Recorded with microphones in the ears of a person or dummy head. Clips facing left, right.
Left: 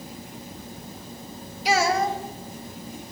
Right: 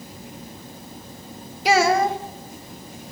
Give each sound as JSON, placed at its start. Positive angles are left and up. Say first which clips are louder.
{"t": 1.6, "sound": "a child speaking", "louder": "right 4 dB", "side_deg": -55, "distance_m": 1.2}